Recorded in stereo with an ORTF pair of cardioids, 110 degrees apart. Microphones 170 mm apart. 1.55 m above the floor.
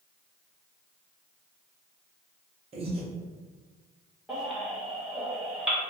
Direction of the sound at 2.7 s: 40° right.